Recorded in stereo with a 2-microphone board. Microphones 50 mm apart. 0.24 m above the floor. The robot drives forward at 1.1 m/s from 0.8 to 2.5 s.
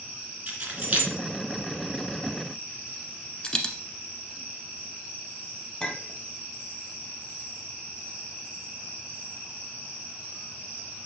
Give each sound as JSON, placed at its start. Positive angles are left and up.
{"t": 0.5, "sound": "keys jangling", "side_deg": -30, "distance_m": 2.0}
{"t": 3.4, "sound": "a dropped coin", "side_deg": 20, "distance_m": 1.0}
{"t": 5.8, "sound": "a clink", "side_deg": 15, "distance_m": 0.9}